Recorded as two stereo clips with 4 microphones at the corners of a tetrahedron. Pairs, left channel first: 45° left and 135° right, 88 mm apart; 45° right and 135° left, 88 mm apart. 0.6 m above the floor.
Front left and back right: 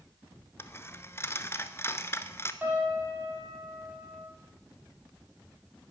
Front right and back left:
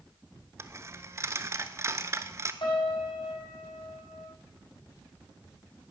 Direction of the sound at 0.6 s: 90° left.